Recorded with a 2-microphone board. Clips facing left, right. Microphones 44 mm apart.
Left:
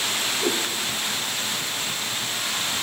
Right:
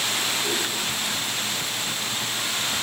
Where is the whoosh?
85° left, 5 m.